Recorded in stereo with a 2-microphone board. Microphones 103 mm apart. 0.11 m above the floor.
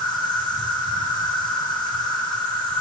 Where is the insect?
45° left (ahead or behind), 7 m.